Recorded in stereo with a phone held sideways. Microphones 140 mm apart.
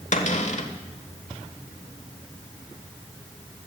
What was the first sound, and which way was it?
A cupboard door, 55° left (ahead or behind).